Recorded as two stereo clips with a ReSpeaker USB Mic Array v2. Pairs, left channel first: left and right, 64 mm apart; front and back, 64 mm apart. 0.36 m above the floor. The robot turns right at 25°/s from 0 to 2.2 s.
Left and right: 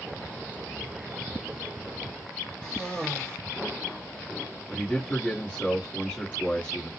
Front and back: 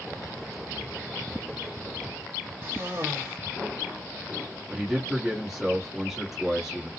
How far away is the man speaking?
About 1.0 m.